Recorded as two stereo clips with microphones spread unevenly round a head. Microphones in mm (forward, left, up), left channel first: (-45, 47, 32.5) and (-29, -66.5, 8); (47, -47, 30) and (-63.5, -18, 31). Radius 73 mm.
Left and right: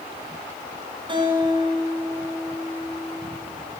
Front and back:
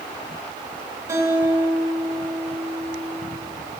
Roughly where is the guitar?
Behind right.